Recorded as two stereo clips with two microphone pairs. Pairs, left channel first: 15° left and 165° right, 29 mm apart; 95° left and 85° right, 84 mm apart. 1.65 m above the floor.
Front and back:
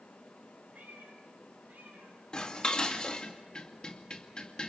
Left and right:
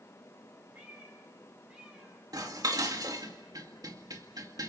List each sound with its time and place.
0.7 s a cat meowing: 150° right, 9 m; by 2.2 s 160° right, 9 m
2.3 s dishes clattering: 45° right, 2 m